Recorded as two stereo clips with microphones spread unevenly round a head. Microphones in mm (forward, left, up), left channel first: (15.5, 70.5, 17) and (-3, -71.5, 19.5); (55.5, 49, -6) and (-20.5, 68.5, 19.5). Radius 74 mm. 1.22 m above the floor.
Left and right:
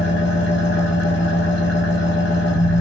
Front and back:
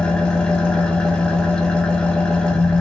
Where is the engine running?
70° left, 2 m.